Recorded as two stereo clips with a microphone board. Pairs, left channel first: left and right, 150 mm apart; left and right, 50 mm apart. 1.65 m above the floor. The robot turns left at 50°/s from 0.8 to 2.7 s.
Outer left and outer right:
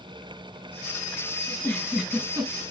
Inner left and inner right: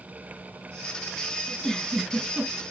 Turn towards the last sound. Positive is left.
turn(degrees=-40)